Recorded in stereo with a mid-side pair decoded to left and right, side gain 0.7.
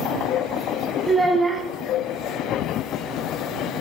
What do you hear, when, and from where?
1.1 s a child speaking: 10° right, 1.5 m